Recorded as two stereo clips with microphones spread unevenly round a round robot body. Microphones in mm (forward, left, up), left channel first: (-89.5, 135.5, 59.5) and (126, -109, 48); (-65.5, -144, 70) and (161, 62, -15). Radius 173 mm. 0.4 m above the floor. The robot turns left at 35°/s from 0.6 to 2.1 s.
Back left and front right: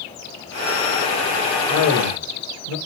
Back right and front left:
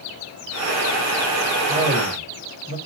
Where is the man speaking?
110° left, 1.7 m; by 2.8 s 95° left, 1.7 m.